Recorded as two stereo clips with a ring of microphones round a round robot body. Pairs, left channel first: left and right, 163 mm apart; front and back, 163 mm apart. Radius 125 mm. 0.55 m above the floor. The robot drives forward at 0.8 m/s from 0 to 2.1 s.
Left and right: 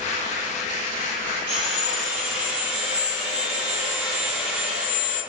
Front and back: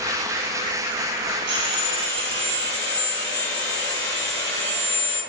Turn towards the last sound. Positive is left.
turn(degrees=-160)